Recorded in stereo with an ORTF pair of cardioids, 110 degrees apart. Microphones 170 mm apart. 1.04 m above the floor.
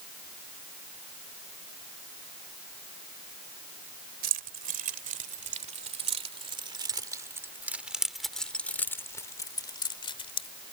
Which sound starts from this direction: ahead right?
Keys jangling, at 4.2 s.